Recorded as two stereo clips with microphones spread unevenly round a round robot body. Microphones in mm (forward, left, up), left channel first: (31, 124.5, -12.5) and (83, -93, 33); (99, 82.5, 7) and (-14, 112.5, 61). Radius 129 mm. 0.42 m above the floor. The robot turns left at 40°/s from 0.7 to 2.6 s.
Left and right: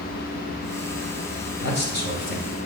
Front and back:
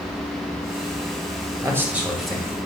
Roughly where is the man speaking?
Left.